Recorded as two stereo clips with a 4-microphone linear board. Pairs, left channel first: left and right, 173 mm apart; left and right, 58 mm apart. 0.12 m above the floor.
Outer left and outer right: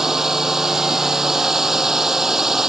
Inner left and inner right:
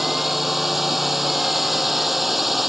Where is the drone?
5° right (ahead or behind).